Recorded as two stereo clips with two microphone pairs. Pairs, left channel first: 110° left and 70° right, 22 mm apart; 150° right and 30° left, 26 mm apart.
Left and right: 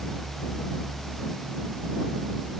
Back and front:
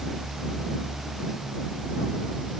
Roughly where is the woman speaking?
I don't hear a woman speaking.